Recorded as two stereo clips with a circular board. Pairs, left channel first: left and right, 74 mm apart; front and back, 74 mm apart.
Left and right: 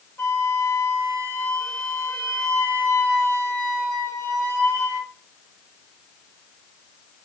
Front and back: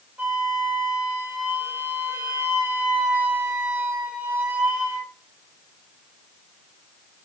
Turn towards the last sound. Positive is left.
turn(degrees=130)